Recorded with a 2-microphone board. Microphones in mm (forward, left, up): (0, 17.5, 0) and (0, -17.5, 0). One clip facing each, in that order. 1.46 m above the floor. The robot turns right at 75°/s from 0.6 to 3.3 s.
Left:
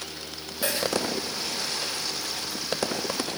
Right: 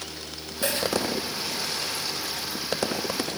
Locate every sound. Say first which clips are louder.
0.6 s a dropped coin: right 1 dB; 15° left (ahead or behind), 1.9 m; by 0.9 s centre (ahead or behind), 1.9 m